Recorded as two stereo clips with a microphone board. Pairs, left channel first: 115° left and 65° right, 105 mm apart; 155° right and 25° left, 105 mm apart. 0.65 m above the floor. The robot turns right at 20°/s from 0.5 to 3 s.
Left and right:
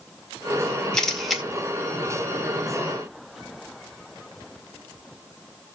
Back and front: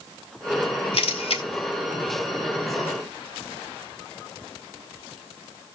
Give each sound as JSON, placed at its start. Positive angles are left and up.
{"t": 0.9, "sound": "a camera shutter", "azimuth_deg": -165, "distance_m": 2.0}